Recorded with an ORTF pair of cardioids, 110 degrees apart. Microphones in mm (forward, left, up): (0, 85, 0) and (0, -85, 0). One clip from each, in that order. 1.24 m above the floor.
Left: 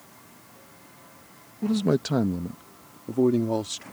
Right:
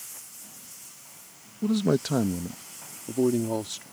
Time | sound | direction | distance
1.6 | a man speaking | 5° right | ?